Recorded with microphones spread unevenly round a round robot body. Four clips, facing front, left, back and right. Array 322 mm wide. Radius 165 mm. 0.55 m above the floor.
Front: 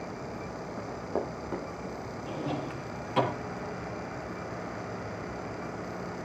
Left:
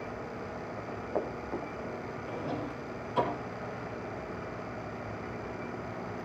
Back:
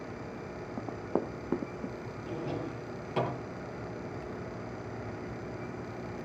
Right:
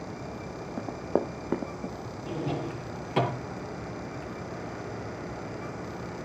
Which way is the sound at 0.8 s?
95° right.